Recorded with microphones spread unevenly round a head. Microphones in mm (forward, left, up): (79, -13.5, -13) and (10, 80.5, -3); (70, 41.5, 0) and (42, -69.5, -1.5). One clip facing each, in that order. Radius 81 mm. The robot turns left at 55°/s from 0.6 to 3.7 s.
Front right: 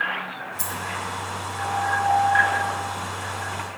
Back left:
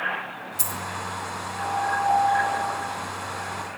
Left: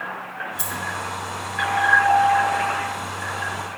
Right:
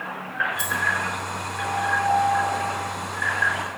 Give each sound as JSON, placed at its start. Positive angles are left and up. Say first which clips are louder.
{"t": 0.6, "sound": "a dropped coin", "louder": "front right 1 dB, right 2 dB", "azimuth_deg": 140, "distance_m": 0.7}